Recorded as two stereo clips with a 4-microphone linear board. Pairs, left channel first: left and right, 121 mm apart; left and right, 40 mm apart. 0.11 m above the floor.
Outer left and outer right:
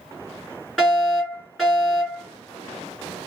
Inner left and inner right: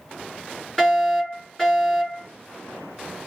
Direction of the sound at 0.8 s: 5° left (ahead or behind).